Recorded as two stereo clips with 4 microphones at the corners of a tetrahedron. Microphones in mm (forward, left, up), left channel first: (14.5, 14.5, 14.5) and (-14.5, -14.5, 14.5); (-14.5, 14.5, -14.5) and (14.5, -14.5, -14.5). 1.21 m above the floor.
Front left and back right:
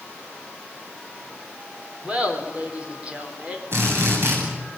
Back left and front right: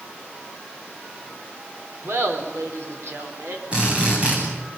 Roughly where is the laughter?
Right.